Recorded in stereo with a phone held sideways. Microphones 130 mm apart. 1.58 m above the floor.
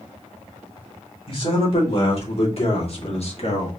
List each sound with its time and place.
1.3 s a man speaking: 45° left (ahead or behind), 2.5 m; by 3.7 s 55° left (ahead or behind), 1.4 m